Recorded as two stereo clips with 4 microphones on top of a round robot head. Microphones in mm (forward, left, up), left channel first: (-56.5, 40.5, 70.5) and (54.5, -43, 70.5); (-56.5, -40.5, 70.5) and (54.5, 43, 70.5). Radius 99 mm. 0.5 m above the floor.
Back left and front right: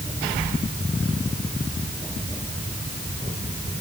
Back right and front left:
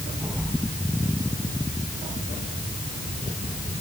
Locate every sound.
Only background noise.